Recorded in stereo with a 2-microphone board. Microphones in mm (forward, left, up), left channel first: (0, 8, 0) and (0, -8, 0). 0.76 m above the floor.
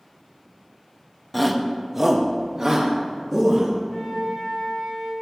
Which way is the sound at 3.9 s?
40° left (ahead or behind).